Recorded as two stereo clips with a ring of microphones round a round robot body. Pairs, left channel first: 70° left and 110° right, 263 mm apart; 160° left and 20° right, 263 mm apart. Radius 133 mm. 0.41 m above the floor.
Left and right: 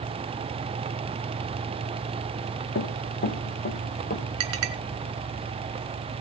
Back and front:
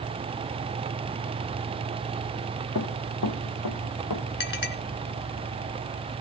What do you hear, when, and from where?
2.8 s running footsteps: 120° left, 2 m; by 4.2 s 130° left, 3.5 m
4.4 s a clink: 150° right, 2.5 m